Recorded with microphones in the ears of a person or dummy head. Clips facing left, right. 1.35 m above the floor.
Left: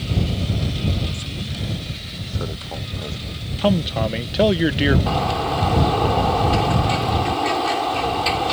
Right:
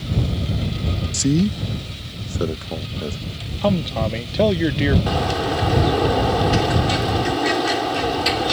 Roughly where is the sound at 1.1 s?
Right.